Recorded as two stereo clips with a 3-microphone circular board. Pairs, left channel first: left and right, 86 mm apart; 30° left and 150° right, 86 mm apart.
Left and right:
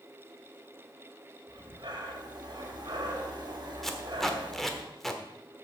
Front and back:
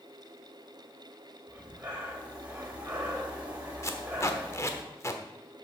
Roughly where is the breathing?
Right.